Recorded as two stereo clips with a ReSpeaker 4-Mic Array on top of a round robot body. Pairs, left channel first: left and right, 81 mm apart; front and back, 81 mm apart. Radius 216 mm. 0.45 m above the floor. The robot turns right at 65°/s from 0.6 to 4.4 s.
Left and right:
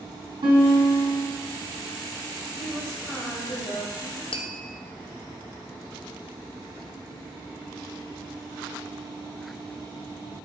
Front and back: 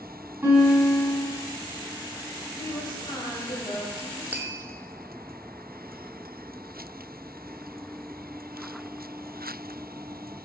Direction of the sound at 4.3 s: 105° left.